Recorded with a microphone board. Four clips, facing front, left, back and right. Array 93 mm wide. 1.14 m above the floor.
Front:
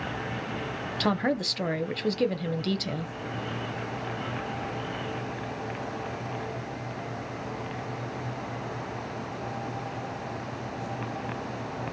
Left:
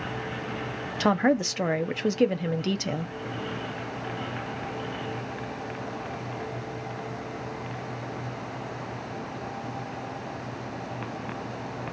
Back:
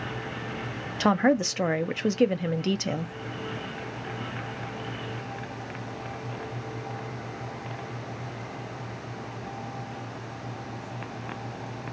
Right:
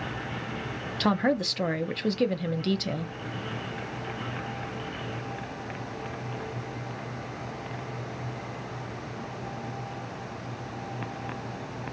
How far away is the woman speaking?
About 0.5 m.